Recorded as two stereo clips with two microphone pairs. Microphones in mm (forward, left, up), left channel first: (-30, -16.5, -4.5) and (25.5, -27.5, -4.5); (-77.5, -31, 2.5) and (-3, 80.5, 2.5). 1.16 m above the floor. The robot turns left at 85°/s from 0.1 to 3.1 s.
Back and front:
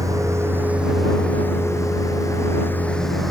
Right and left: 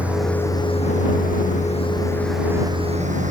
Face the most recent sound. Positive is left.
turn(degrees=80)